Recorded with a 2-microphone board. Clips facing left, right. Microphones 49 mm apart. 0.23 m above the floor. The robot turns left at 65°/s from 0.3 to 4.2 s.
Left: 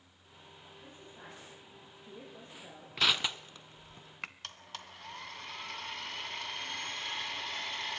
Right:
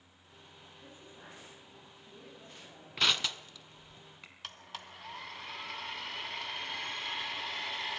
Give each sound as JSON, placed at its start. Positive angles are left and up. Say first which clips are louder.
{"t": 0.8, "sound": "a woman speaking", "louder": "left 1 dB", "azimuth_deg": -165, "distance_m": 9.5}
{"t": 3.0, "sound": "crushing", "louder": "left 1 dB", "side_deg": 0, "distance_m": 0.9}
{"t": 4.4, "sound": "a blender", "louder": "right 1 dB", "side_deg": -5, "distance_m": 1.7}